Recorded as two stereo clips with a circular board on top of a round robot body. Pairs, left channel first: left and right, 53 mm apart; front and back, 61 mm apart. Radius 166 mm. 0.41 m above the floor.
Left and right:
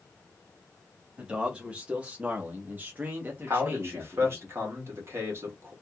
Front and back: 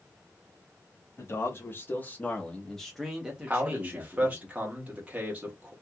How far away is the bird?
I don't hear a bird.